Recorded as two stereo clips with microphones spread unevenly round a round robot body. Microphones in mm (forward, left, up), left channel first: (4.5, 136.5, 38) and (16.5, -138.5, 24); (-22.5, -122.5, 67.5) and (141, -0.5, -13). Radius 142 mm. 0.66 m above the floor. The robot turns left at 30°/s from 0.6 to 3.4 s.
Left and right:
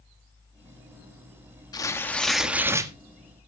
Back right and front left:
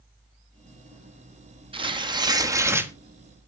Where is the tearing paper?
20° left, 1.2 m; by 2.9 s 20° right, 1.2 m.